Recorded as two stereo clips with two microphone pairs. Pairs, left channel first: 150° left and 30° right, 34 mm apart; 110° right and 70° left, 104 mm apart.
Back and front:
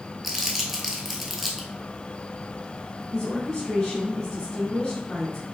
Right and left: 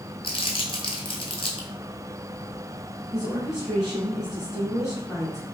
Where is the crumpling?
115° right, 0.7 m.